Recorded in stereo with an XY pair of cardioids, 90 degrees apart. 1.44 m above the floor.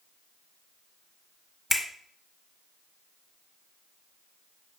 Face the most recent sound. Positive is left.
turn(degrees=15)